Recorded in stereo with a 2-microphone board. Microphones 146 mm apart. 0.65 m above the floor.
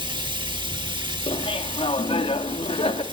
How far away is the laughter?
About 1.1 m.